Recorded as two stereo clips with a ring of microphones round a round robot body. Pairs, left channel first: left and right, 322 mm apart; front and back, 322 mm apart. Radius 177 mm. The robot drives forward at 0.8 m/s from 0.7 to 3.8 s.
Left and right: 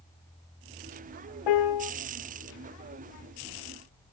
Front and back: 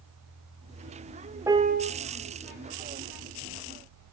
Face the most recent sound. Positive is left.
turn(degrees=165)